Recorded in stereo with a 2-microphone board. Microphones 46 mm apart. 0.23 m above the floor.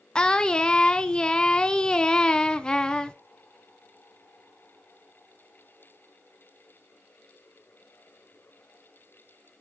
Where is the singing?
15° left (ahead or behind), 0.5 m.